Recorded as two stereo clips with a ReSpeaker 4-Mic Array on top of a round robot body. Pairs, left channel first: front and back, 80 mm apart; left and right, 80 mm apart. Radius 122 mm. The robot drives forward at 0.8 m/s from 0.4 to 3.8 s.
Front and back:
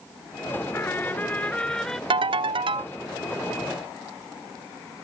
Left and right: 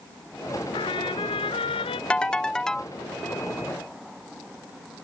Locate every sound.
0.7 s a trumpet: 65° left; by 2.0 s 85° left
2.1 s a ringtone: 165° left; by 2.9 s 170° left